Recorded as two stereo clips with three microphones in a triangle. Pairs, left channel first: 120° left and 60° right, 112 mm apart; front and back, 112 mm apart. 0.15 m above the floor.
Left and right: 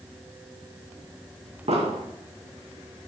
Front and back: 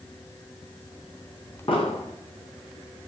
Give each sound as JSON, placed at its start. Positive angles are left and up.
{"t": 1.7, "sound": "an explosion", "azimuth_deg": -40, "distance_m": 3.5}